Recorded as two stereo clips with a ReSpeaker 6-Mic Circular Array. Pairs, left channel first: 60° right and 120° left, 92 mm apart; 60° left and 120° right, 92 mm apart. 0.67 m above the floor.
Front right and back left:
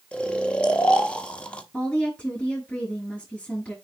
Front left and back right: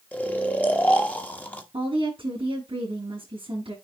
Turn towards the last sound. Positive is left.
turn(degrees=-135)